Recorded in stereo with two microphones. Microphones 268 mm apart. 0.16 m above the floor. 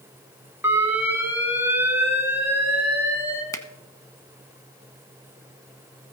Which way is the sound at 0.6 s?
10° right (ahead or behind).